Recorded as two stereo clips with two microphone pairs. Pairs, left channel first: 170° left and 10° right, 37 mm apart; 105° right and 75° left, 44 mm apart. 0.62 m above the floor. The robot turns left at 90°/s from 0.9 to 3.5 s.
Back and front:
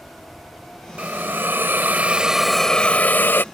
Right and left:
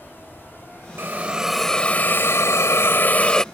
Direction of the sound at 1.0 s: 35° left.